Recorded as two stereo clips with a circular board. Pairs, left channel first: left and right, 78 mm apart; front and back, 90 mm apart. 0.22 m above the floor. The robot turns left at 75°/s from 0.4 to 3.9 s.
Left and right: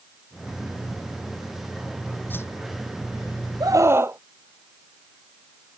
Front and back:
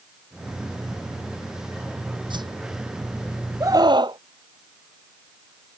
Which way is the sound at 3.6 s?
125° right.